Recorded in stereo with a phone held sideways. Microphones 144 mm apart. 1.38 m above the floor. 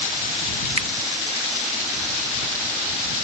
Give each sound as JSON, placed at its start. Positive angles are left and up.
{"t": 0.8, "sound": "a finger snap", "side_deg": -40}